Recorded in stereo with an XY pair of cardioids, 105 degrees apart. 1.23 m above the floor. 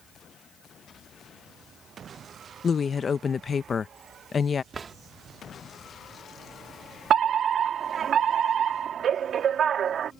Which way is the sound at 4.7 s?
40° right.